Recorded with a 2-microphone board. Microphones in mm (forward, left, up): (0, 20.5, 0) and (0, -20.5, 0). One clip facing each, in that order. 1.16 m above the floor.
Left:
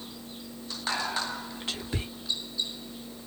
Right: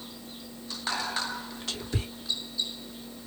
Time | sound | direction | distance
0.9 | whispering | 25° left (ahead or behind) | 3 m